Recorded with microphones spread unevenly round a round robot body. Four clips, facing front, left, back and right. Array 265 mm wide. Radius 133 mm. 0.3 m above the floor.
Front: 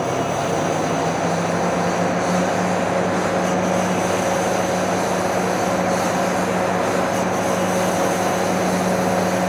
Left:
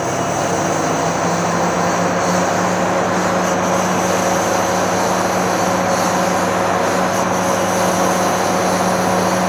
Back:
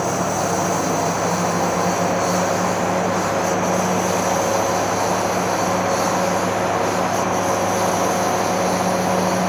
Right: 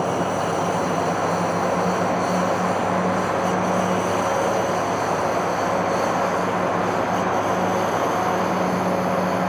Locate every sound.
0.0 s a lawn mower: 85° left; by 9.5 s 75° left